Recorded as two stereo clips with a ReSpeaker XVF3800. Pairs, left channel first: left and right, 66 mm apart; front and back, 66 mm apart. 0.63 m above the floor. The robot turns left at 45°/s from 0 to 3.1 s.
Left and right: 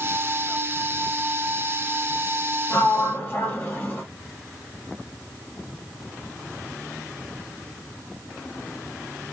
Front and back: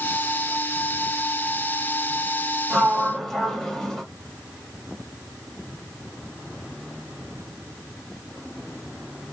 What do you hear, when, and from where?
2.7 s a sliding door: 90° left, 1.2 m; by 4.0 s 75° left, 1.2 m